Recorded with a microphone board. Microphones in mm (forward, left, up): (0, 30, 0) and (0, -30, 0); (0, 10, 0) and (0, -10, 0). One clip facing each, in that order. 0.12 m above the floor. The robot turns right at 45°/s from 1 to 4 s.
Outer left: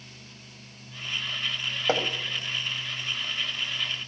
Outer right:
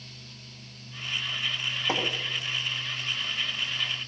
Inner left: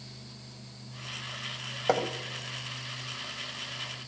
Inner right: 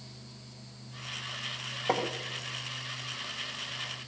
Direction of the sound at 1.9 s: 60° left (ahead or behind).